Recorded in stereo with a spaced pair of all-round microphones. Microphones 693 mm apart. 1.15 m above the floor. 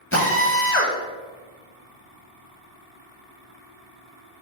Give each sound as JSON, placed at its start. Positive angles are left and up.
{"t": 0.1, "sound": "a drill", "side_deg": 20, "distance_m": 0.7}